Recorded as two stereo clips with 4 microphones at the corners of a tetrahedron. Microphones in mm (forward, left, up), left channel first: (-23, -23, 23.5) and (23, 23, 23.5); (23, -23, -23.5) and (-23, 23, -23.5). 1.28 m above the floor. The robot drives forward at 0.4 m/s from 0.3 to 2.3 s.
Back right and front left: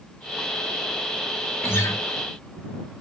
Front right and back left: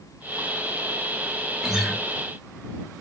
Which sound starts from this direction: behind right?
A guitar, at 1.6 s.